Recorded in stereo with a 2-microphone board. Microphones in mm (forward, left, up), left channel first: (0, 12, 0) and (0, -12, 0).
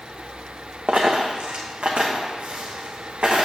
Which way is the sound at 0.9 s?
65° right (ahead or behind).